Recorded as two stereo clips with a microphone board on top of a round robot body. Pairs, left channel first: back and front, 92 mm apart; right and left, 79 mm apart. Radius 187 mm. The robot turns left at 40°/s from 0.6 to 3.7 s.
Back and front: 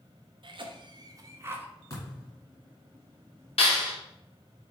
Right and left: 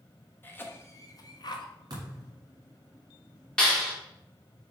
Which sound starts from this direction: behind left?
A thud, at 1.9 s.